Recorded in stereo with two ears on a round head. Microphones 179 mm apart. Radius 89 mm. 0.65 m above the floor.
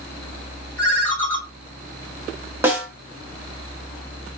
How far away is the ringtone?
About 1.3 m.